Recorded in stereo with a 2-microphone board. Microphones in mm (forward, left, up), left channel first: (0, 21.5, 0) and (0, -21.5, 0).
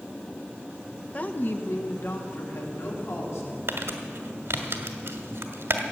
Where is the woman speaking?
35° left (ahead or behind), 0.8 m; by 3.6 s 75° left (ahead or behind), 3.5 m.